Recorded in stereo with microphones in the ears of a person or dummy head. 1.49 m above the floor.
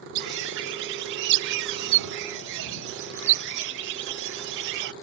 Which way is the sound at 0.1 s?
70° right (ahead or behind).